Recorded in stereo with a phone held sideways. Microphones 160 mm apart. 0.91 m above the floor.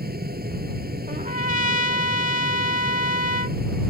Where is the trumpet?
60° right (ahead or behind).